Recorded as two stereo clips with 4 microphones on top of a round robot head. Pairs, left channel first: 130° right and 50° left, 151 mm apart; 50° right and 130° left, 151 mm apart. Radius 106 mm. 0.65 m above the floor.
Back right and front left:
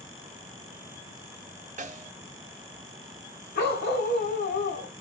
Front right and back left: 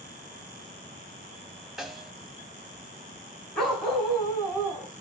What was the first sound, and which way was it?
A snare drum, 40° left.